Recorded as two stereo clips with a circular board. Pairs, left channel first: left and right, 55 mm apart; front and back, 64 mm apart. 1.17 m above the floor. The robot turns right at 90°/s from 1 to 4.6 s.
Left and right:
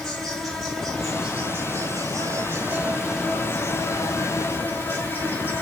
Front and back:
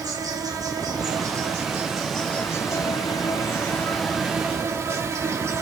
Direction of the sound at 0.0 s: 175° left.